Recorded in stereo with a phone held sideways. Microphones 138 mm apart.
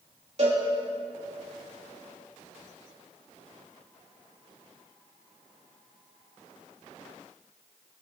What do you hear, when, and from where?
0.4 s a cowbell: 55° right (ahead or behind), 3 m